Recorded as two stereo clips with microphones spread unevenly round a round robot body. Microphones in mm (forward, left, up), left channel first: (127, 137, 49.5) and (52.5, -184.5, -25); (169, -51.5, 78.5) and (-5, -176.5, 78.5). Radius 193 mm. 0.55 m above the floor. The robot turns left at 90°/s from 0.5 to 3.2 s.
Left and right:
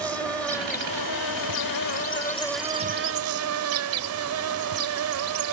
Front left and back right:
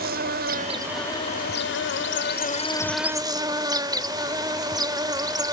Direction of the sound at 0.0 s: 170° left.